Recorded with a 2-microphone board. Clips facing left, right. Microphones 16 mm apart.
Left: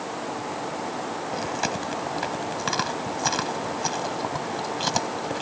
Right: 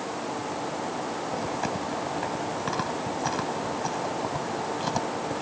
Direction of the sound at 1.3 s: 75° left (ahead or behind).